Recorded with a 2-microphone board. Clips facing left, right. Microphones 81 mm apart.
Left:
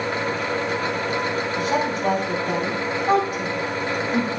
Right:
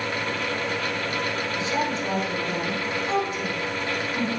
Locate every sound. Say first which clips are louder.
1.6 s a woman speaking: left 4 dB; 60° left (ahead or behind), 3 m